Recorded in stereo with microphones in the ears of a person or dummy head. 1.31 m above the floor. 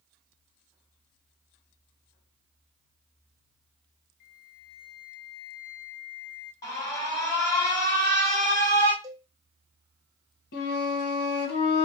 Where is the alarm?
15° left (ahead or behind), 2.0 m.